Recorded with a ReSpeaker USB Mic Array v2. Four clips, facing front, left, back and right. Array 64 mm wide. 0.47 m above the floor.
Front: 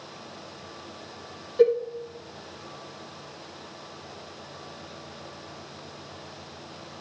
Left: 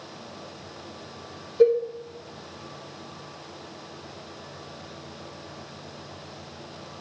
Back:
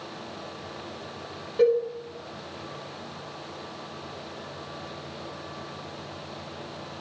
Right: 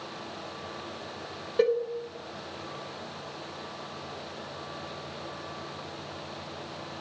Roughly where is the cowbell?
Right.